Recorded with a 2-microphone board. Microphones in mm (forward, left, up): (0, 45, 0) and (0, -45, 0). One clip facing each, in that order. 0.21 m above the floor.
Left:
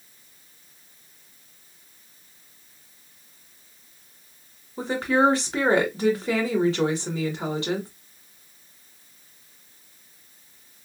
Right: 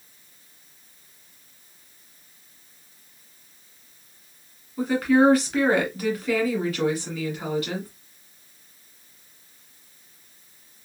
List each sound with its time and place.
4.8 s a woman speaking: 25° left (ahead or behind), 1.7 m